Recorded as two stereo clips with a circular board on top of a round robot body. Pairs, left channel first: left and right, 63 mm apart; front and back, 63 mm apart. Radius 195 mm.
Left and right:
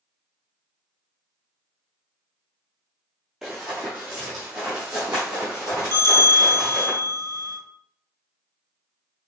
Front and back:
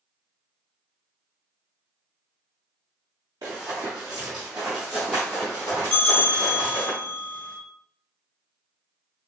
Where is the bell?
70° right, 1.2 m.